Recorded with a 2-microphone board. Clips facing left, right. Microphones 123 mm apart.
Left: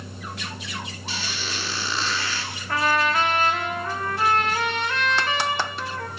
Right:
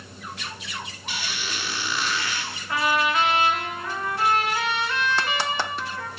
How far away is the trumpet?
About 7.5 m.